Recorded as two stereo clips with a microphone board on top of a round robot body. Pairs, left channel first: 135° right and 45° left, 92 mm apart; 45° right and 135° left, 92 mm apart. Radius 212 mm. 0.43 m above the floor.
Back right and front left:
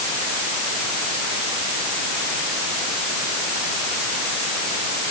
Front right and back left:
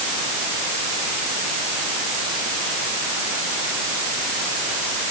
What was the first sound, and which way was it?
Only background noise.